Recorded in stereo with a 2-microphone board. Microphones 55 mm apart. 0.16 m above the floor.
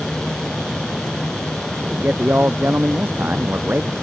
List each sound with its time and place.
1.8 s a man speaking: 35° right (ahead or behind)